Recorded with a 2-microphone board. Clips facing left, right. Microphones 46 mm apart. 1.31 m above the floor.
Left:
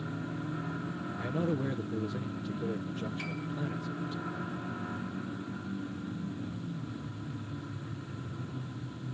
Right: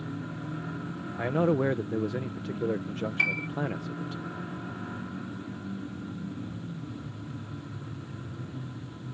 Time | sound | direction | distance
1.2 | a man speaking | 55° right (ahead or behind) | ?
3.2 | a piano | 75° right (ahead or behind) | ?